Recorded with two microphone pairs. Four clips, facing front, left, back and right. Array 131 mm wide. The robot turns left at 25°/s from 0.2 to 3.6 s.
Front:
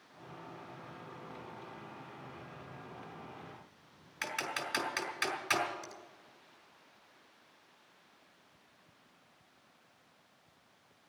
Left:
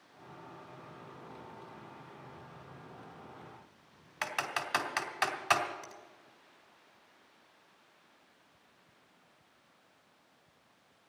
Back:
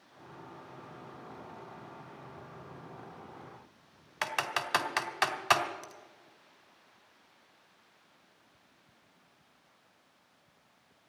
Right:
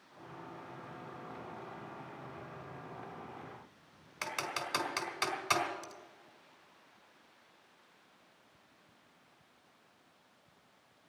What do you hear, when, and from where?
4.2 s typing on a keyboard: 165° left, 1.6 m
5.8 s a finger snap: 55° left, 1.2 m